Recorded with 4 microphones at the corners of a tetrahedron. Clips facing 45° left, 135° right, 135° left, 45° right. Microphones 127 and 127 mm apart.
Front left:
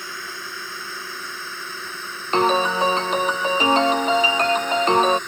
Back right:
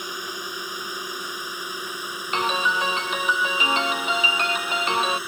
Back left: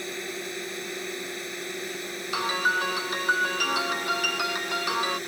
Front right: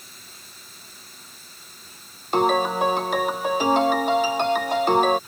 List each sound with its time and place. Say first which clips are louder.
0.0 s a drone: back right 2 dB, back left 17 dB; 150° left; by 5.3 s 145° left
2.3 s a piano: front left 6 dB, front right 10 dB; 10° right